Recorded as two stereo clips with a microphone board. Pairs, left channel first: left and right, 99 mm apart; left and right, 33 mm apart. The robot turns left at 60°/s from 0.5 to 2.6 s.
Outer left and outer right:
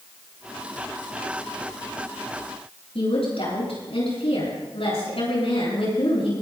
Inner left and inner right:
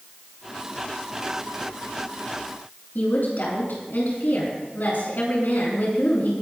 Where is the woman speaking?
75° left (ahead or behind), 9 m.